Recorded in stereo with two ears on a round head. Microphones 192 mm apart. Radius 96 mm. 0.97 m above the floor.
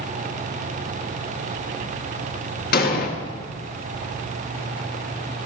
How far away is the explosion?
About 1.8 m.